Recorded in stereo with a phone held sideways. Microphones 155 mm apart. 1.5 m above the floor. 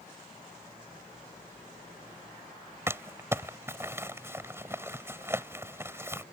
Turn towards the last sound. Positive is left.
turn(degrees=-15)  # may be behind; listen again after turning